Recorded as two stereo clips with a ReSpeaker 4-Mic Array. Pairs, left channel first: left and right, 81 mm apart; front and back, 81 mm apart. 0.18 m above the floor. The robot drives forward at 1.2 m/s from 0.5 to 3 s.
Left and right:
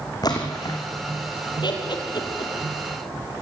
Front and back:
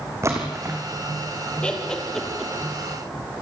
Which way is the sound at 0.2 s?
125° left.